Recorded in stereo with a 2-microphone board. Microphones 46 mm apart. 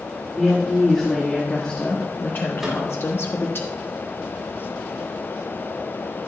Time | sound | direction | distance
0.4 | a woman speaking | centre (ahead or behind) | 2 m
2.6 | a microwave | 5° right (ahead or behind) | 3.5 m